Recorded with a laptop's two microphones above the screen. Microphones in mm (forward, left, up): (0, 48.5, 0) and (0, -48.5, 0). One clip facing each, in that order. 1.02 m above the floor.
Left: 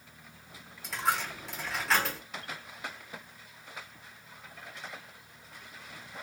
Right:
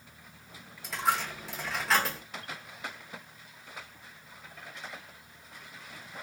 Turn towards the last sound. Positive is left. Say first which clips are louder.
# right 1 dB
turn(degrees=0)  # may be behind; listen again after turning